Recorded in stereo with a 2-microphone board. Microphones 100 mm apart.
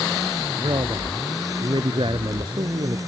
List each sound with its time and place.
0.6 s a man speaking: 50° right (ahead or behind); by 3.0 s 60° right (ahead or behind)